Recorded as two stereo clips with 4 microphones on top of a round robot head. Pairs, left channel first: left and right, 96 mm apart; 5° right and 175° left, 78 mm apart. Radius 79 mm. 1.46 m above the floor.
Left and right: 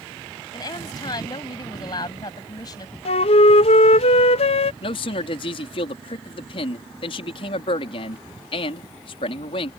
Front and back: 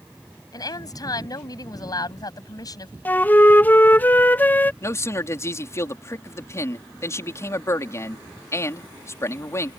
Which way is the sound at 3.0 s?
60° left.